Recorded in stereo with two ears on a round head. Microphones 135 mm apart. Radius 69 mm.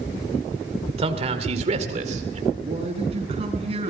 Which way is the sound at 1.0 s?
40° right (ahead or behind).